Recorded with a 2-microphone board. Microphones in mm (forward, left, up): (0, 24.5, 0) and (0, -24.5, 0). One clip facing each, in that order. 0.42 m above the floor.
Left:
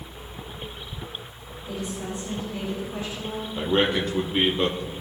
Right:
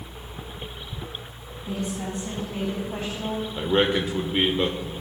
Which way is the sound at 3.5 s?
5° right (ahead or behind).